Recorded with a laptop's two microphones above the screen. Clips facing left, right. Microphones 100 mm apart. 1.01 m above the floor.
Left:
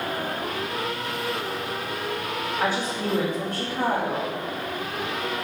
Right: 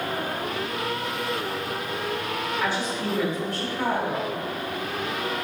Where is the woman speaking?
50° left (ahead or behind), 2 m.